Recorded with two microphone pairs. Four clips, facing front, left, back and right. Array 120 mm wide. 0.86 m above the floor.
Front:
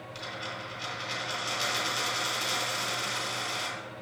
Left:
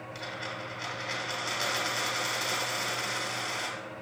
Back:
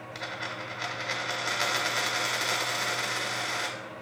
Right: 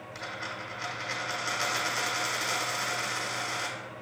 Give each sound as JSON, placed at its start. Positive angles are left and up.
{"t": 0.1, "sound": "a dropped coin", "azimuth_deg": -175, "distance_m": 1.2}